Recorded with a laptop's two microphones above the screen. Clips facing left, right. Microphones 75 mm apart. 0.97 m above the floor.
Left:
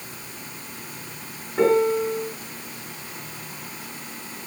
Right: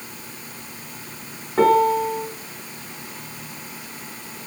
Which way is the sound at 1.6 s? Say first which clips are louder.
Right 3 dB; 55° right (ahead or behind).